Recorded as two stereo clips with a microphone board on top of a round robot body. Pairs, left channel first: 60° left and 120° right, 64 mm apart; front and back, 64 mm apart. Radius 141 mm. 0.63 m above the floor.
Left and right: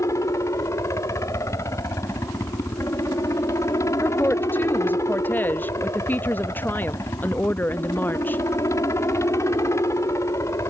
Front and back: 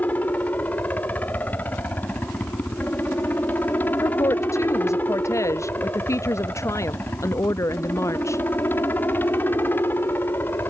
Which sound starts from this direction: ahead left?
A helicopter, at 0.0 s.